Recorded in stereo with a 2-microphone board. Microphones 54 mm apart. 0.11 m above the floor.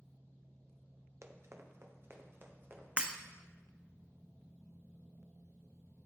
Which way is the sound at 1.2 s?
55° right (ahead or behind).